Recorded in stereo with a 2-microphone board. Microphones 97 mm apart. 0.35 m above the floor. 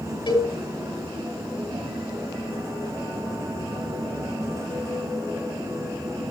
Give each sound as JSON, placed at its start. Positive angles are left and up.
{"t": 0.3, "sound": "a cowbell", "side_deg": 60, "distance_m": 3.5}